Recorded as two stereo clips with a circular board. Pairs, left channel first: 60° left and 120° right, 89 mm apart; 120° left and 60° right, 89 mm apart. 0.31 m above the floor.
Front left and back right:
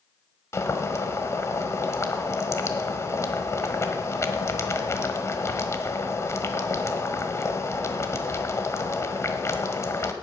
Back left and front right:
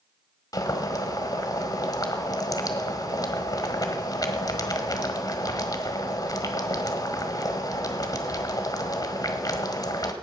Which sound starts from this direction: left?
Boiling, at 0.5 s.